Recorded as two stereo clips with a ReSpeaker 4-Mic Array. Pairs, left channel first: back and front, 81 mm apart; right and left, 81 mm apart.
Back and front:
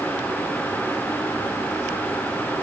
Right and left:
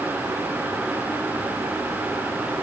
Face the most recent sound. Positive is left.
No sound to turn to.